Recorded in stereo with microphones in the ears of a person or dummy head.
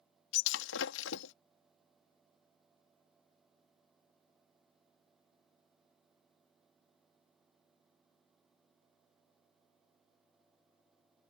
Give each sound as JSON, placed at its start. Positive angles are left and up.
{"t": 0.3, "sound": "breaking glass", "side_deg": 60}